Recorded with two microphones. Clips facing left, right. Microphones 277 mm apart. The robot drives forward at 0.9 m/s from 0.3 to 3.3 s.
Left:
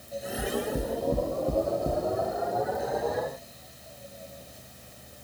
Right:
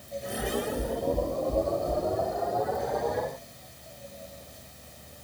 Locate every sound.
0.4 s knocking: 70° left (ahead or behind), 3.5 m; by 2.0 s 55° left (ahead or behind), 4 m